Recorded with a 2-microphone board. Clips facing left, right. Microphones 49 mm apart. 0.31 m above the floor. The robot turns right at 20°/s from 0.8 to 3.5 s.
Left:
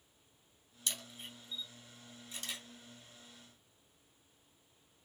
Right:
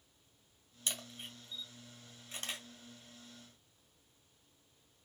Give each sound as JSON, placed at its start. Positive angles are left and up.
{"t": 0.9, "sound": "a camera shutter", "side_deg": -30, "distance_m": 2.0}